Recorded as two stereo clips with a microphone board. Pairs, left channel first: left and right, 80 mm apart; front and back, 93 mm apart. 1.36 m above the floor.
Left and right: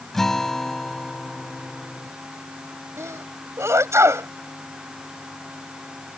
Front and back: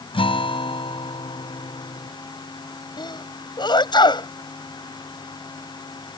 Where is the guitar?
5° left.